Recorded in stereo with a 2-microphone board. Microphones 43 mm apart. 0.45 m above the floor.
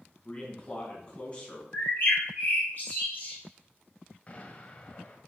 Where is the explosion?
30° left (ahead or behind), 1.7 m.